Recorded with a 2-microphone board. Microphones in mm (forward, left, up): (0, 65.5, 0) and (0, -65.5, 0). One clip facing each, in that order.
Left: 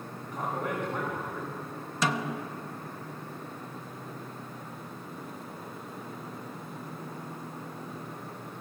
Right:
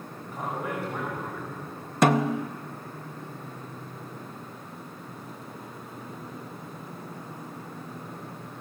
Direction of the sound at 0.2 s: 10° right (ahead or behind).